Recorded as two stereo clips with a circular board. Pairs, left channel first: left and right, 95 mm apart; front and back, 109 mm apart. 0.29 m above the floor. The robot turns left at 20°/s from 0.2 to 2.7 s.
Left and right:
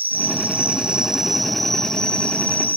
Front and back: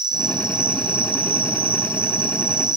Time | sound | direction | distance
0.0 | an insect | 155° right | 1.6 m